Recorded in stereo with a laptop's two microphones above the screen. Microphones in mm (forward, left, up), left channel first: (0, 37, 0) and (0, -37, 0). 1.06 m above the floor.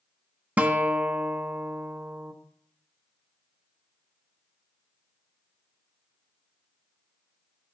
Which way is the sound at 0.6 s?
20° right (ahead or behind).